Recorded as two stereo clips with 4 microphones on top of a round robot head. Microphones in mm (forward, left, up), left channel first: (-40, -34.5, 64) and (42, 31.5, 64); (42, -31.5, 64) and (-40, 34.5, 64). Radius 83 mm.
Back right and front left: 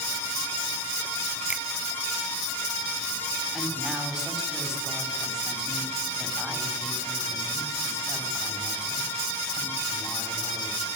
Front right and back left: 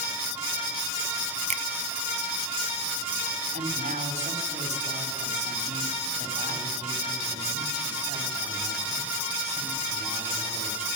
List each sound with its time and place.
1.5 s a finger snap: 115° left, 0.5 m
3.5 s a woman speaking: 125° left, 6.5 m